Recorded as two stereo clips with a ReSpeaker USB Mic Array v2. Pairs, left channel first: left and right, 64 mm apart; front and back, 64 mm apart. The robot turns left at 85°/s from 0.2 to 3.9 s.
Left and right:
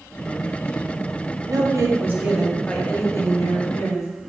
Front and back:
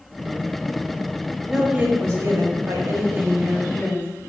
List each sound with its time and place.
1.5 s a woman speaking: 90° right, 0.8 m; by 4.3 s 65° left, 0.8 m